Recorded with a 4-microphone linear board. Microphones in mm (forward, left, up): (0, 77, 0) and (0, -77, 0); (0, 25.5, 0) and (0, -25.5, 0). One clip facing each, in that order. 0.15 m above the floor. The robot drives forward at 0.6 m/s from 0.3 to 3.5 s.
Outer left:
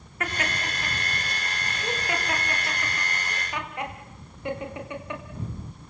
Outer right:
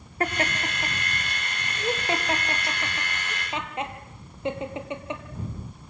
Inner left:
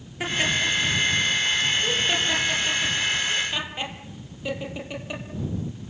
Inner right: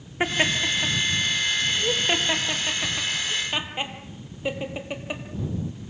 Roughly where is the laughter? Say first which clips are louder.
Outer right 4 dB, inner right 1 dB; right.